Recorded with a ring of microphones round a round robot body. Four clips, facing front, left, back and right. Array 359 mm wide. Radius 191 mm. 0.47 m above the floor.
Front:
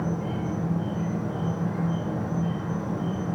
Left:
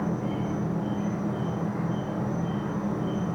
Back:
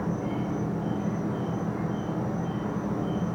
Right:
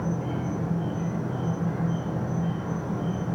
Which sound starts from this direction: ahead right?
An insect, at 0.0 s.